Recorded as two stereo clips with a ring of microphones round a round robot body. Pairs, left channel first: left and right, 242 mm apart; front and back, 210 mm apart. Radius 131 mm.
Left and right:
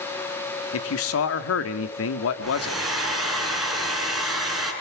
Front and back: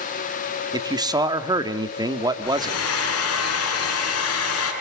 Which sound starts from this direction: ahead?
A hair dryer, at 2.4 s.